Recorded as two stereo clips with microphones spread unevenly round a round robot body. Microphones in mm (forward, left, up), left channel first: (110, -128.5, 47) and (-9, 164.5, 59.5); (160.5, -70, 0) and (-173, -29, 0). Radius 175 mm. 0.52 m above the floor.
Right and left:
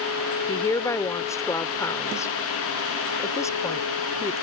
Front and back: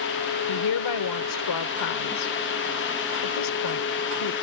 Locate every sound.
0.5 s a woman speaking: 10° left